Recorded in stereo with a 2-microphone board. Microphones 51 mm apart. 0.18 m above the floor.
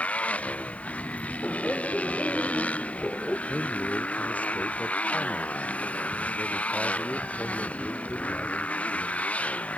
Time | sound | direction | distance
0.0 | a motorcycle | 25° left (ahead or behind) | ?
1.4 | laughter | 15° left (ahead or behind) | ?
3.5 | a man speaking | 25° left (ahead or behind) | ?